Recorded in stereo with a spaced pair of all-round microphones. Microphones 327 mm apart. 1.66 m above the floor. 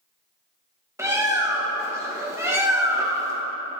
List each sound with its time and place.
1.0 s a bird: 10° right (ahead or behind), 1.3 m